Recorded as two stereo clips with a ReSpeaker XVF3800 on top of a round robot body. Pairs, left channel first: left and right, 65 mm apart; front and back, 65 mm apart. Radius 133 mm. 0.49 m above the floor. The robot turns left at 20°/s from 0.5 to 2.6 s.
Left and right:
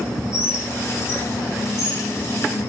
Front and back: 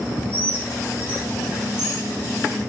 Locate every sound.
0.3 s a bird: 130° left, 5 m; by 2.7 s 90° left, 5 m